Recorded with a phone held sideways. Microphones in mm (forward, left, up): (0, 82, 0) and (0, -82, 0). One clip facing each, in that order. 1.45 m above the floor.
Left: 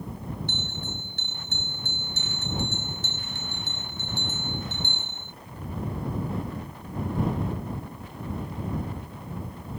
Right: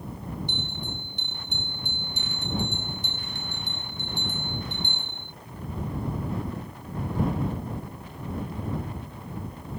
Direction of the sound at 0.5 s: 15° right (ahead or behind).